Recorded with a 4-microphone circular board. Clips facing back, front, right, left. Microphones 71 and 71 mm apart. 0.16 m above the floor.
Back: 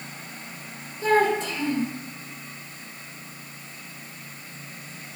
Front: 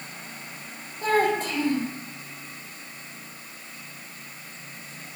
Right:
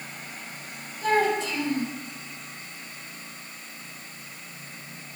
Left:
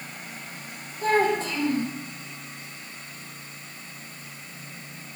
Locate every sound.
1.0 s a child speaking: 40° left, 3.5 m